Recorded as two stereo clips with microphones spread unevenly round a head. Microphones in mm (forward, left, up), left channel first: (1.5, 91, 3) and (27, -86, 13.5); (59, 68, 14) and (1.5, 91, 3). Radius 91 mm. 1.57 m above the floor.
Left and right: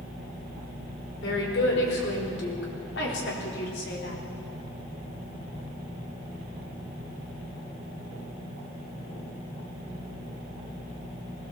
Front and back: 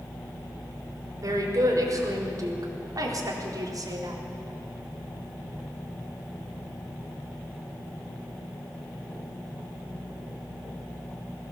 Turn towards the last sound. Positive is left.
turn(degrees=135)